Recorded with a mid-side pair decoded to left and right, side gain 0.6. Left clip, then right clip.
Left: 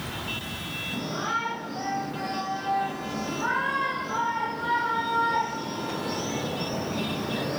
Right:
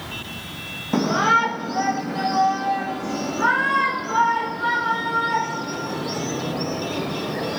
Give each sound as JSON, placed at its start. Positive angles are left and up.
{"t": 0.9, "sound": "a shout", "azimuth_deg": -65, "distance_m": 1.6}